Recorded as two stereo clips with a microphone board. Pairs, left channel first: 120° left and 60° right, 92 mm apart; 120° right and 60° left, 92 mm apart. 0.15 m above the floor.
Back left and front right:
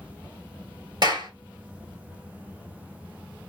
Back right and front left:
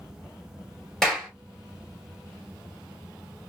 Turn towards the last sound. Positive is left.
turn(degrees=-35)